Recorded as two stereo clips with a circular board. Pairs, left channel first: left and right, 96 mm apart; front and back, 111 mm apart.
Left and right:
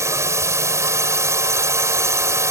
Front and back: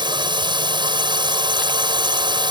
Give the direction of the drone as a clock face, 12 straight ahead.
5 o'clock.